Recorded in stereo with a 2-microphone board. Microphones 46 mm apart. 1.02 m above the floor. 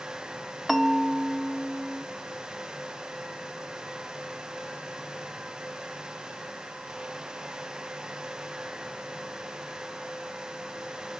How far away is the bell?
About 0.7 m.